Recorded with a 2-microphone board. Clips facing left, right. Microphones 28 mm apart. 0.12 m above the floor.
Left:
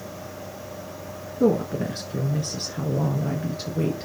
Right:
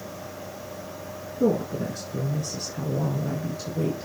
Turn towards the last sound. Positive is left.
turn(degrees=35)  # may be behind; listen again after turning